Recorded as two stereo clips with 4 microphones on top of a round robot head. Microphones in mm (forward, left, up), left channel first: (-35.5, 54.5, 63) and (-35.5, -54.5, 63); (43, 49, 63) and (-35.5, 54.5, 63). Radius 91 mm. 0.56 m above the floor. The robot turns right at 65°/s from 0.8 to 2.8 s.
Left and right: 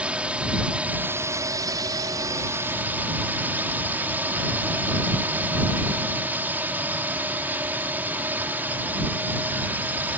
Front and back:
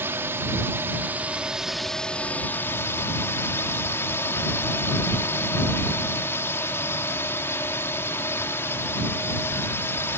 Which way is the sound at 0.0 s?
160° right.